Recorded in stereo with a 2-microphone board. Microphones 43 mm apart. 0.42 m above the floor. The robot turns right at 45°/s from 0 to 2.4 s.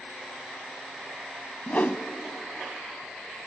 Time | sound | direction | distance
1.7 | a whoosh | 45° left (ahead or behind) | 0.7 m